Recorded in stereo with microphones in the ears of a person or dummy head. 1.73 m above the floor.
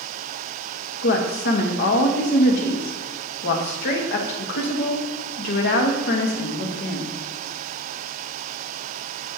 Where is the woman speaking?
50° left (ahead or behind), 1.0 m.